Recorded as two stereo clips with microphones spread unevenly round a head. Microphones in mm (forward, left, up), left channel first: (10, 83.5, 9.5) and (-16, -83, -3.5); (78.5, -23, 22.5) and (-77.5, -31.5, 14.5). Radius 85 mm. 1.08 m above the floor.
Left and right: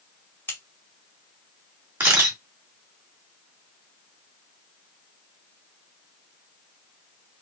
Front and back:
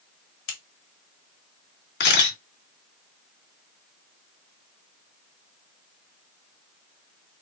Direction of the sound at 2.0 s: 20° right.